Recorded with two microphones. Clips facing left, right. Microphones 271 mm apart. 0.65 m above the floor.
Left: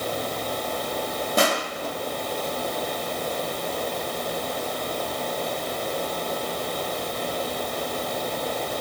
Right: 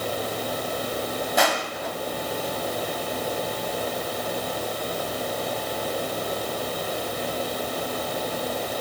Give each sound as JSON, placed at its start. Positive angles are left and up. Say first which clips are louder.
{"t": 1.4, "sound": "crushing", "louder": "left 3 dB", "side_deg": 40, "distance_m": 1.5}